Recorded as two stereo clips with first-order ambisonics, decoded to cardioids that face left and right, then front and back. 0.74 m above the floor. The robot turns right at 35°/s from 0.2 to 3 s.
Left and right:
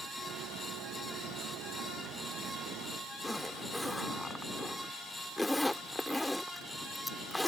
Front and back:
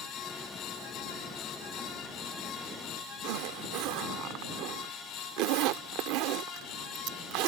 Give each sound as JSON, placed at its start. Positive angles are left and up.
{"t": 3.2, "sound": "a zipper", "azimuth_deg": 175}